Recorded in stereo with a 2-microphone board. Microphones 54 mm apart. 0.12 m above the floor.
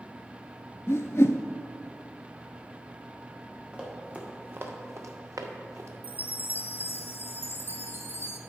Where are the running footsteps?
20° right (ahead or behind), 2.5 m; by 5.9 s 70° right (ahead or behind), 1.5 m.